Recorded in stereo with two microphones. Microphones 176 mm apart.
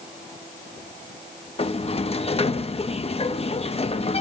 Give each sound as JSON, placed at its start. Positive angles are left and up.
{"t": 1.6, "sound": "a sliding door", "side_deg": 35, "distance_m": 0.9}